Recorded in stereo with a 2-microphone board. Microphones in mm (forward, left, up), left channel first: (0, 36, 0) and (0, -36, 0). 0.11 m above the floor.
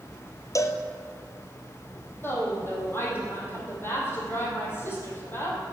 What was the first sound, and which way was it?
A cowbell, 45° left (ahead or behind).